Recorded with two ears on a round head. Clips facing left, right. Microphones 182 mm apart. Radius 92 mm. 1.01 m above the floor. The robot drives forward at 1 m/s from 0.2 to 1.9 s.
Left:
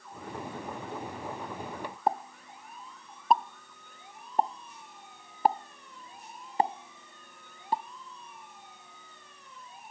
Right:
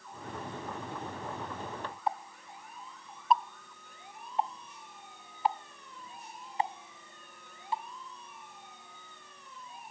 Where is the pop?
40° left (ahead or behind).